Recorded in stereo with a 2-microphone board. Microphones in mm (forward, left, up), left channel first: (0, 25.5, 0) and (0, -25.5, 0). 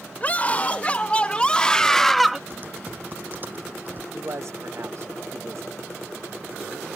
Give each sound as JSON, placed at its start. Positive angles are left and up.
{"t": 0.2, "sound": "a scream", "side_deg": 30}
{"t": 2.5, "sound": "typing on a keyboard", "side_deg": -40}
{"t": 4.1, "sound": "a man speaking", "side_deg": -65}